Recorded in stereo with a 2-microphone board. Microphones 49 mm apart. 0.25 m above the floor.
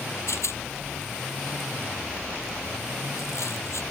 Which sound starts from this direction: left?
A rattle, at 0.3 s.